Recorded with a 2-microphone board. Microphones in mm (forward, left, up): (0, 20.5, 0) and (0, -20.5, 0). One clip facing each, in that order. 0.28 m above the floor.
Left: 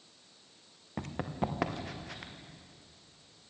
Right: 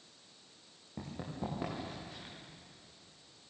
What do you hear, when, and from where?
1.0 s running footsteps: 65° left (ahead or behind), 3.5 m; by 2.3 s 85° left, 5 m